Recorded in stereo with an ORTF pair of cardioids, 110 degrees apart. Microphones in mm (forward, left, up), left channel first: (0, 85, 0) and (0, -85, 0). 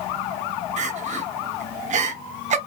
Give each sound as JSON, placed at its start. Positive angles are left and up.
{"t": 0.8, "sound": "crying", "azimuth_deg": -40, "distance_m": 1.0}